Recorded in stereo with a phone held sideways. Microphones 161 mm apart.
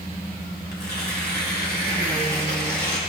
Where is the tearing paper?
75° left (ahead or behind), 1.8 m.